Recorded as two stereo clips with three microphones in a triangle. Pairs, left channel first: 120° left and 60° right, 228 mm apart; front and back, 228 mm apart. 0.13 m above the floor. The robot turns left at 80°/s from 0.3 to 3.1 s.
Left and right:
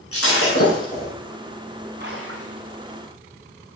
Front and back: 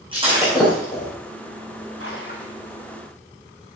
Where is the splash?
20° right, 2.5 m; by 2.6 s 70° right, 2.5 m.